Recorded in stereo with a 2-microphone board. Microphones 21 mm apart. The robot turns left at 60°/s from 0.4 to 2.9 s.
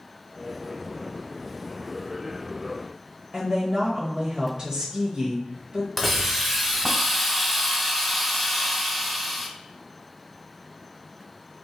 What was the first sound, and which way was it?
A woman speaking, 35° right (ahead or behind).